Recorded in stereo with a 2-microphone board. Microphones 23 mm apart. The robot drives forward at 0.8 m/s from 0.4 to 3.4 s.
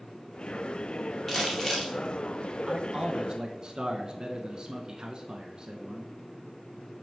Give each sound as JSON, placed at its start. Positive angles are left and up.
{"t": 1.3, "sound": "crumpling", "side_deg": 20, "distance_m": 2.5}
{"t": 2.7, "sound": "a man speaking", "side_deg": -30, "distance_m": 0.9}